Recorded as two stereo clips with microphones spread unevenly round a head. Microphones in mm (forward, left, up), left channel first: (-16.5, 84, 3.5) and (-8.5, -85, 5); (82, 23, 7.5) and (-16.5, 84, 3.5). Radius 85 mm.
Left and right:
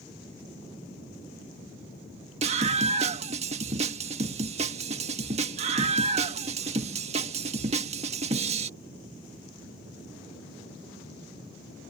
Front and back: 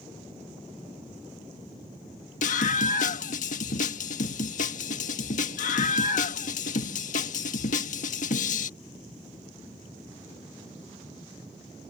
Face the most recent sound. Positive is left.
turn(degrees=-30)